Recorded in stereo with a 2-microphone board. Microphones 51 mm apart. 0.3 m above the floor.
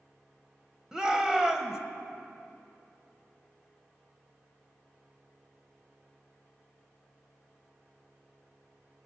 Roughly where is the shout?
Centre.